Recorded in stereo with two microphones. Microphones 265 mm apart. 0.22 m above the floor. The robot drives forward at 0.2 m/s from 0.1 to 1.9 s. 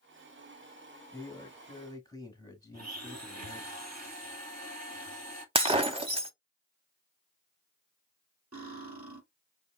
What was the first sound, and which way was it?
A man speaking, 15° left (ahead or behind).